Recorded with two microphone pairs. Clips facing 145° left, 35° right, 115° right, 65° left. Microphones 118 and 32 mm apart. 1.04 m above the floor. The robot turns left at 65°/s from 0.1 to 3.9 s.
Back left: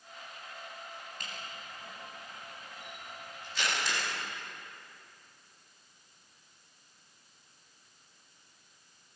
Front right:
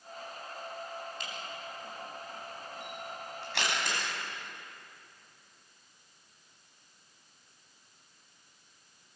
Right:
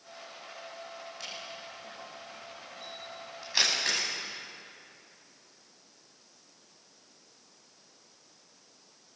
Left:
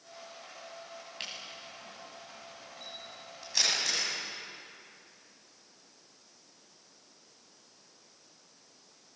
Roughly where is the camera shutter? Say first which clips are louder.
Front right 4 dB, left 1 dB; left.